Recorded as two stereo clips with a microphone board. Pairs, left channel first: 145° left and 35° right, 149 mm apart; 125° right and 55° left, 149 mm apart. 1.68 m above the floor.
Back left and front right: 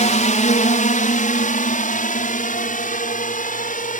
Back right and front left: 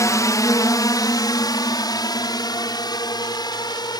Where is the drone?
170° left; by 4.0 s 175° left.